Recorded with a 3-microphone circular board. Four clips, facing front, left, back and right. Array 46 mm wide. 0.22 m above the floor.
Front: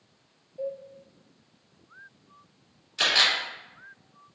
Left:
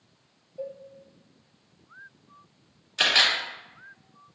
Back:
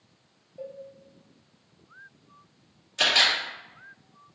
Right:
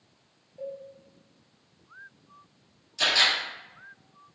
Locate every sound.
0.6 s a cowbell: 100° left, 0.6 m
3.0 s a camera shutter: 90° left, 2 m